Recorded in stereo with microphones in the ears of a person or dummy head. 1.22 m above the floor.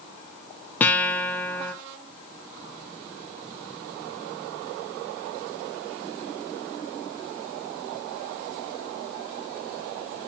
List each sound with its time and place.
0.8 s a guitar: 15° left (ahead or behind), 1.0 m